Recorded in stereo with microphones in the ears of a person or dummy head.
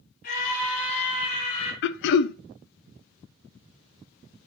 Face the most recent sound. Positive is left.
turn(degrees=65)  # may be behind; listen again after turning